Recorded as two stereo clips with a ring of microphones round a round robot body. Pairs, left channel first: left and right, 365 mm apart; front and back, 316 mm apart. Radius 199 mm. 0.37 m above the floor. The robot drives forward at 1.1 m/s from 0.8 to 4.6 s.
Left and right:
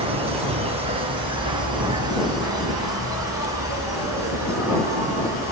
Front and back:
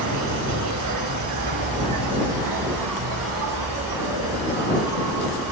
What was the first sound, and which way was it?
An insect, 165° right.